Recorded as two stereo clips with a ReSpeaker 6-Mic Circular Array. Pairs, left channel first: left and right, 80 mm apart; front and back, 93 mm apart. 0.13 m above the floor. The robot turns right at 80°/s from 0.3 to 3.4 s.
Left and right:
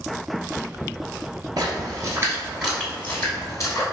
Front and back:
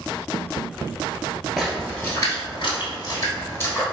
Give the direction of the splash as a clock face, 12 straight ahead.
3 o'clock.